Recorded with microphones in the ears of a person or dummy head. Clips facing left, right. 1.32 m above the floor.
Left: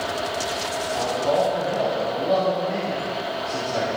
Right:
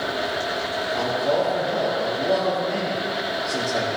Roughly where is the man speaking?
Centre.